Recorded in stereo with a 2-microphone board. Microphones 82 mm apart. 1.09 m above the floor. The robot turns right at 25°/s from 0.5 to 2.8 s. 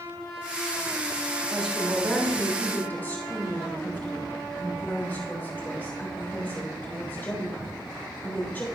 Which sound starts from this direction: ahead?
A woman speaking, at 1.5 s.